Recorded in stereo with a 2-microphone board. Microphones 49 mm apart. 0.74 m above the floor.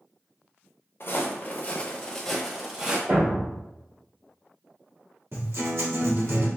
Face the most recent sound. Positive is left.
turn(degrees=-55)  # may be behind; listen again after turning